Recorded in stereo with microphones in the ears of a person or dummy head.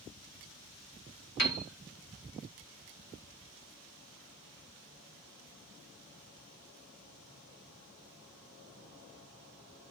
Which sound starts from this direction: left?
A piano, at 1.4 s.